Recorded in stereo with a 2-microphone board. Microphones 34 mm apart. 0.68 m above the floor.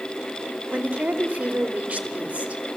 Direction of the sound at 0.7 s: 40° right (ahead or behind).